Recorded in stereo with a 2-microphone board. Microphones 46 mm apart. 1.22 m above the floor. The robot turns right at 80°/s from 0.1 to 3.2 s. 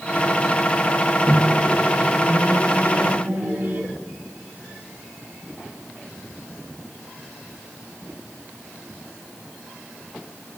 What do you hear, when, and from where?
1.3 s a microwave: 35° left (ahead or behind), 1.8 m; by 3.9 s 60° right (ahead or behind), 1.8 m